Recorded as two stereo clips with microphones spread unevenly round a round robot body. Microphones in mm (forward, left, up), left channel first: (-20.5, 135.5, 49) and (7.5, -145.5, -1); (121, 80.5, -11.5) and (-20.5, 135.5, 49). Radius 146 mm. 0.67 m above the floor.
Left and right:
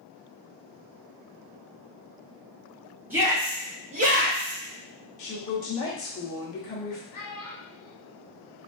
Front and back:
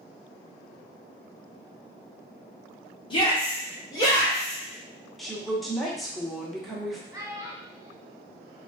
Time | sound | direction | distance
3.1 | a shout | 10° right | 1.2 m
5.2 | a woman speaking | 50° left | 1.1 m
7.1 | a child speaking | 80° left | 1.2 m